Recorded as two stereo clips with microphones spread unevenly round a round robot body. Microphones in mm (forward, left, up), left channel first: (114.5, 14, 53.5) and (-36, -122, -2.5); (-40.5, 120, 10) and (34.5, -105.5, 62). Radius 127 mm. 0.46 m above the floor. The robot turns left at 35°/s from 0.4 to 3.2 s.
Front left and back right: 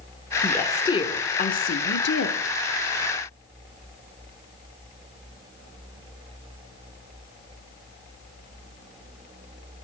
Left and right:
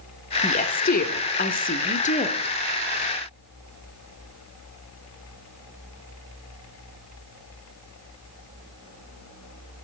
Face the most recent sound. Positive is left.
turn(degrees=40)